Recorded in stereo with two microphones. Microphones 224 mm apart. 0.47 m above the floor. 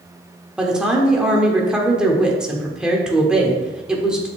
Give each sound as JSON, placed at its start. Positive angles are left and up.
{"t": 0.6, "sound": "a woman speaking", "side_deg": -5, "distance_m": 1.4}